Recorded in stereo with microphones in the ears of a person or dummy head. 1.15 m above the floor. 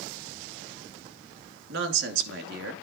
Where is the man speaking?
75° right (ahead or behind), 2 m.